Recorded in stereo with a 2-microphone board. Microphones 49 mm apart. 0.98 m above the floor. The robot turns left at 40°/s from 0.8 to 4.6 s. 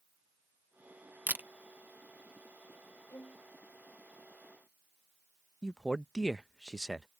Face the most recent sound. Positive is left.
turn(degrees=10)  # may be behind; listen again after turning